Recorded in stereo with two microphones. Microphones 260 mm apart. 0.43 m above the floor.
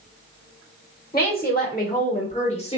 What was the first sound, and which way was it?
A woman speaking, 35° left (ahead or behind).